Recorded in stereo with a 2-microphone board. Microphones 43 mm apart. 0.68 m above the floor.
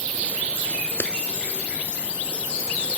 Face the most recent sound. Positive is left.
turn(degrees=55)  # may be behind; listen again after turning